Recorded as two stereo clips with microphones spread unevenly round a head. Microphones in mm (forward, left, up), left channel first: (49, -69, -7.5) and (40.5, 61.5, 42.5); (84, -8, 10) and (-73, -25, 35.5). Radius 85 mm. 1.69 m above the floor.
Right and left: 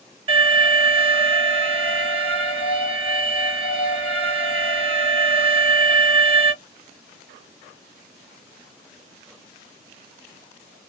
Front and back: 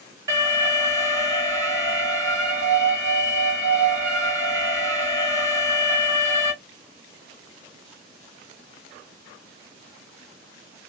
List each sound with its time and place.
0.3 s an alarm: 120° left, 1.4 m